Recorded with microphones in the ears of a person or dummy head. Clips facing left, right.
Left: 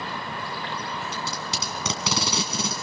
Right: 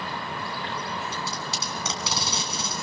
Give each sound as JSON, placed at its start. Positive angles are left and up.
{"t": 1.1, "sound": "tape being pulled", "side_deg": 60, "distance_m": 2.0}